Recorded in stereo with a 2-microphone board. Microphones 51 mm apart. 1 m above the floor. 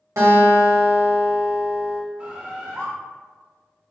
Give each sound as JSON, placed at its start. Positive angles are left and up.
{"t": 0.2, "sound": "a guitar", "side_deg": -70, "distance_m": 1.6}
{"t": 2.2, "sound": "a bird", "side_deg": -20, "distance_m": 0.7}